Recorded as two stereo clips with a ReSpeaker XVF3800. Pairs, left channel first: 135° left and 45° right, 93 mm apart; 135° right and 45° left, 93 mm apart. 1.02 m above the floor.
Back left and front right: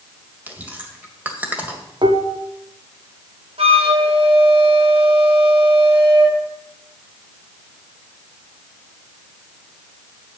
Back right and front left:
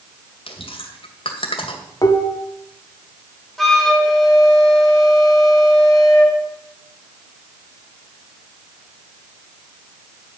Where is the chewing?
120° right, 2 m.